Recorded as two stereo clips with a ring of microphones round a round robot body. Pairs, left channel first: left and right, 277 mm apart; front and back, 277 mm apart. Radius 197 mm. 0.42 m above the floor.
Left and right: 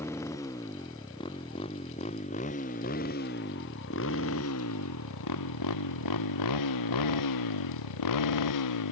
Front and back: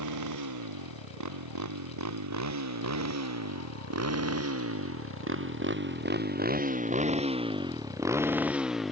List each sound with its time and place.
0.0 s a motorcycle: 175° left; by 8.9 s 90° left